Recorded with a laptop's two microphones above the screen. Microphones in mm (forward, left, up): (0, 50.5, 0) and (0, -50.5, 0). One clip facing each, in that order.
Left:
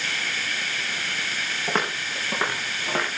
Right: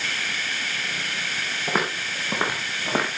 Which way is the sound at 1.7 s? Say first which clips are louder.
Right 1 dB; 5° right (ahead or behind).